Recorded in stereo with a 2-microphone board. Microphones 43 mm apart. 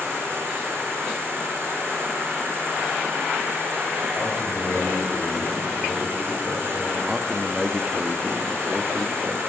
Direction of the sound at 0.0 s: 65° right (ahead or behind).